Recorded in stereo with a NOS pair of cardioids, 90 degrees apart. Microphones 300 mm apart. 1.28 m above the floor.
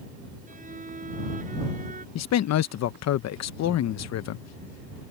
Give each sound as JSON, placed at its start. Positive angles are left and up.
{"t": 0.5, "sound": "a violin", "azimuth_deg": -30}
{"t": 2.1, "sound": "a man speaking", "azimuth_deg": 60}